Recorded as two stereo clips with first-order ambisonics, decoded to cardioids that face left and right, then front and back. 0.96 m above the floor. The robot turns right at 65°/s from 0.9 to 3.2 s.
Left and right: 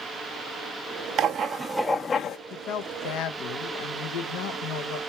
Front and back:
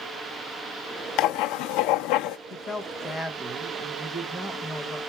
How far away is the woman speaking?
About 0.9 m.